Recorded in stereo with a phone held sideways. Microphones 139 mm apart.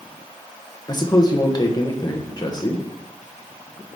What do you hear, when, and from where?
0.9 s a man speaking: 30° left (ahead or behind), 1.0 m